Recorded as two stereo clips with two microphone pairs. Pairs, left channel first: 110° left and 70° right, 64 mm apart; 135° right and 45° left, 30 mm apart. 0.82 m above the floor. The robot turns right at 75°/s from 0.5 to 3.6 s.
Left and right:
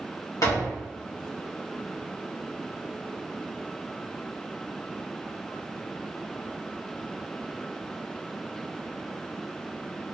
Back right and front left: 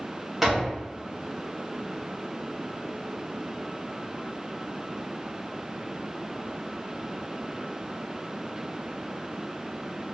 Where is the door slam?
130° left, 1.3 m; by 0.8 s 150° left, 1.3 m.